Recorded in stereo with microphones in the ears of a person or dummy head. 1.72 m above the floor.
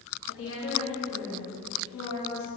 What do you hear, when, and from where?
0.3 s a woman speaking: 80° left, 1.6 m; by 2.5 s 65° left (ahead or behind), 3 m